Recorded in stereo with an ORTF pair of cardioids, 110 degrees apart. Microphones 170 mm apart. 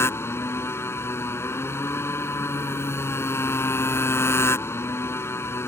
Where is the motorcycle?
15° left.